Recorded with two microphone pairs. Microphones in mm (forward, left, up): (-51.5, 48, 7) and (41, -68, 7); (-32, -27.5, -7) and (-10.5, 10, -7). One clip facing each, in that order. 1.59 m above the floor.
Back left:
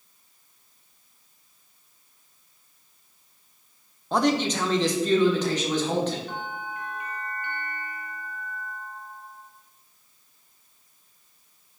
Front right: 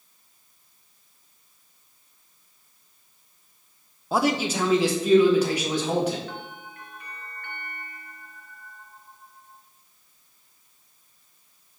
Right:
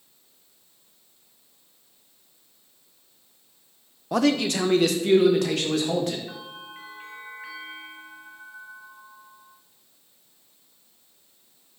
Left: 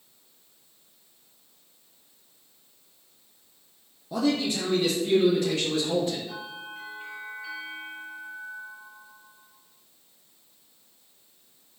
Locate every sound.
4.1 s a man speaking: 135° right, 0.6 m; by 6.2 s 130° right, 2.0 m
6.3 s a bell: 160° right, 3.5 m